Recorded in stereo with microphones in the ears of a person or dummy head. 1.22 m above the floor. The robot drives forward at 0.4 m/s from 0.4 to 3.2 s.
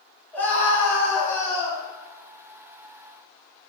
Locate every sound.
0.3 s a scream: 20° left (ahead or behind), 2.5 m; by 1.8 s 30° left (ahead or behind), 2 m